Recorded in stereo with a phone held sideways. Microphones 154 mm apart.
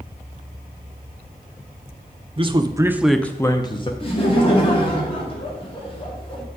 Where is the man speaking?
35° right (ahead or behind), 0.6 m; by 3.9 s 35° left (ahead or behind), 0.7 m.